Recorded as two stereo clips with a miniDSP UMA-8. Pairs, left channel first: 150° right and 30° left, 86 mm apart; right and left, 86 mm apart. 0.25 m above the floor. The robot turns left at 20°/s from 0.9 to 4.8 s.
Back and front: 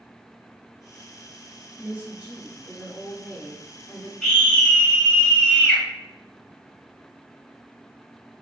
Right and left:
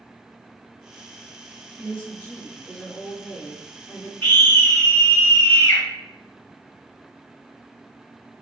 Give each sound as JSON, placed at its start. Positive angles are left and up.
{"t": 1.8, "sound": "a woman speaking", "azimuth_deg": -20, "distance_m": 1.4}
{"t": 4.2, "sound": "a scream", "azimuth_deg": -75, "distance_m": 1.2}